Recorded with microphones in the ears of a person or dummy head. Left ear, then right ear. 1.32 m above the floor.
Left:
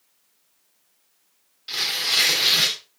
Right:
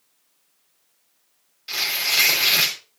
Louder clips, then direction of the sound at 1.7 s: Even; 15° right (ahead or behind).